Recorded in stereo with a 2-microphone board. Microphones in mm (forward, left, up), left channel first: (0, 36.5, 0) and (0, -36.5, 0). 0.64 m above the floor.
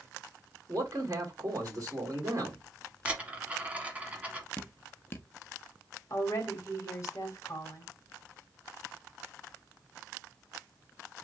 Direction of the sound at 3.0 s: 20° right (ahead or behind).